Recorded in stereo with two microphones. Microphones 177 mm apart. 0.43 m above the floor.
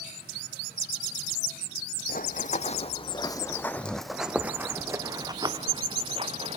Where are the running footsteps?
55° left (ahead or behind), 1.3 m; by 6.6 s 35° right (ahead or behind), 2.5 m.